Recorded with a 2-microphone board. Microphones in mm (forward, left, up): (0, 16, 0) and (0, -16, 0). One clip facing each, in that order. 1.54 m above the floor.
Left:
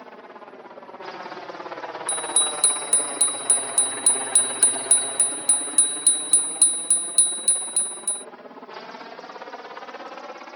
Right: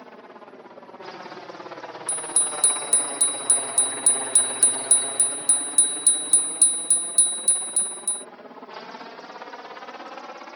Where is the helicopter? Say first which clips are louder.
Left 2 dB; 15° left (ahead or behind); by 10.6 s 25° left (ahead or behind).